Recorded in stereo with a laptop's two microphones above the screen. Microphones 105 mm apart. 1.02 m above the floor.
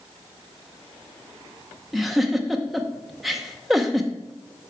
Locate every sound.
1.9 s a giggle: centre (ahead or behind), 0.7 m